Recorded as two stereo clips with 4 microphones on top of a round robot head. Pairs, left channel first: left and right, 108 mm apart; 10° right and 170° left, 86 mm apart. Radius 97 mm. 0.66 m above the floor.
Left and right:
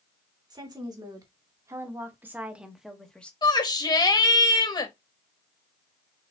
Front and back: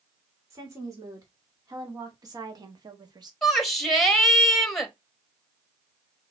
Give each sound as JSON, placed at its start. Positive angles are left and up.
{"t": 0.5, "sound": "a woman speaking", "azimuth_deg": -140, "distance_m": 2.0}
{"t": 3.4, "sound": "a shout", "azimuth_deg": 75, "distance_m": 1.3}